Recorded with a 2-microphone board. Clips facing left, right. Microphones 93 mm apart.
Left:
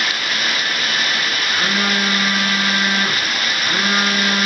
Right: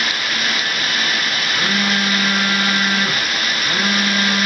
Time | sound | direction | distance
1.5 | a phone buzzing | 15° left (ahead or behind) | 4 m